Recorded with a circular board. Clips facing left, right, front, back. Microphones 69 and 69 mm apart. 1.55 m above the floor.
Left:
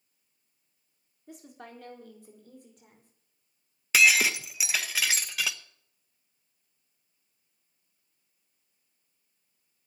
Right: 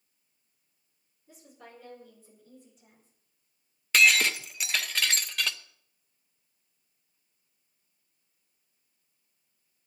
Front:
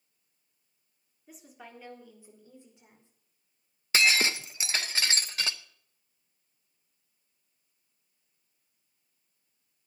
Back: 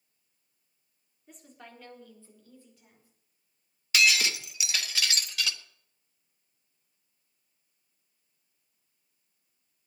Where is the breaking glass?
10° left, 0.9 m.